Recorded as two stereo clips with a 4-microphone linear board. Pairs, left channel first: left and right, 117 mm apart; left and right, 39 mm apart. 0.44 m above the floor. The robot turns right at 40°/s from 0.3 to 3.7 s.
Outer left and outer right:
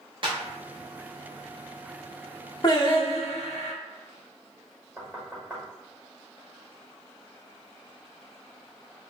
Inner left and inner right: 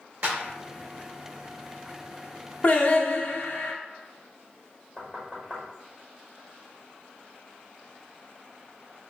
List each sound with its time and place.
0.2 s a clap: 45° right (ahead or behind), 0.8 m
2.6 s singing: 35° left, 0.5 m; by 3.7 s 80° left, 0.5 m
5.0 s knocking: 10° right (ahead or behind), 1.3 m